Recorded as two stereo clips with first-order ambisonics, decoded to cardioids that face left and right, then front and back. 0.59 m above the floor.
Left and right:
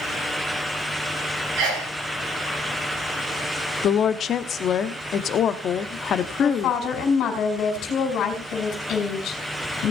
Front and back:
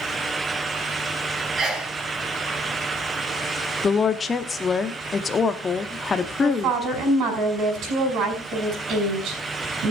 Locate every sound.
1.6 s a sneeze: 115° right, 5 m
3.8 s a woman speaking: 60° left, 0.7 m
6.4 s a woman speaking: 135° left, 5 m